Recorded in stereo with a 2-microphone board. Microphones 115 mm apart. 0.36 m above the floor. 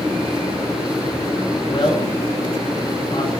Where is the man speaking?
50° left (ahead or behind), 5 m.